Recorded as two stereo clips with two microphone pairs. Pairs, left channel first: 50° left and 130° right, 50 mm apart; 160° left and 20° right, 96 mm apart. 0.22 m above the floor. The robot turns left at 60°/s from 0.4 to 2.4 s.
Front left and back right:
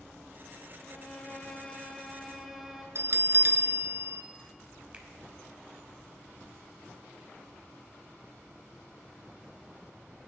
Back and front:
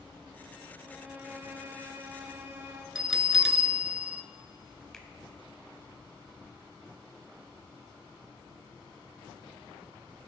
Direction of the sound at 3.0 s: 100° right.